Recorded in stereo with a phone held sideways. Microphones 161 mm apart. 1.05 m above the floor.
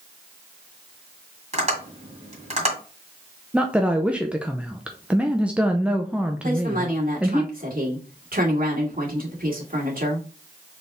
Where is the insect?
I don't hear an insect.